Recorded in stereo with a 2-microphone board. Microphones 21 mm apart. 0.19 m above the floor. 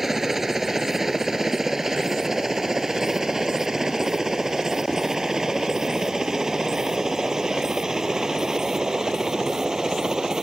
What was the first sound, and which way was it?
A helicopter, 15° right (ahead or behind).